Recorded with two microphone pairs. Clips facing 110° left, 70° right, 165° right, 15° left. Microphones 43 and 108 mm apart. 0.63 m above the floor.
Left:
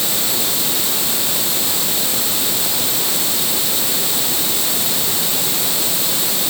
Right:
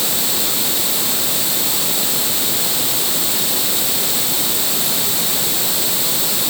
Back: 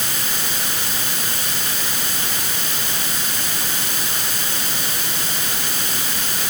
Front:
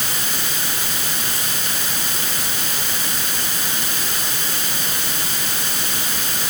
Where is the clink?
No clink in this recording.